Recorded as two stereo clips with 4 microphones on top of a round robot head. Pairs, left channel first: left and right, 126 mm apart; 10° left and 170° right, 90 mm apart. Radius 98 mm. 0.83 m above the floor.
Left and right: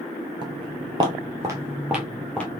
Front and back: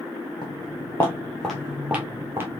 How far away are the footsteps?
About 1.1 m.